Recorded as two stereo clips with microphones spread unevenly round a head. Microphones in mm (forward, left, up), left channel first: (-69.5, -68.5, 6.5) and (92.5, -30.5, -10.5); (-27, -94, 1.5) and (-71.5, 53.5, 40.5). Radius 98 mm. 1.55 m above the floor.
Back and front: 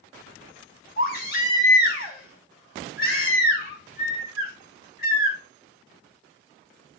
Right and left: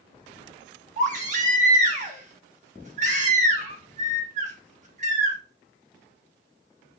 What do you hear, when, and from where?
1.0 s a baby crying: 145° left, 3 m